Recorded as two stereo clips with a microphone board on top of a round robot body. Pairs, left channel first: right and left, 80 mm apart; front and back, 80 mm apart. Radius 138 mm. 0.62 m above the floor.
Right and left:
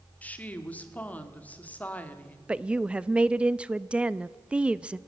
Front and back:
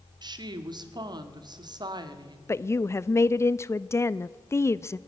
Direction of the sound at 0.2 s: 160° right.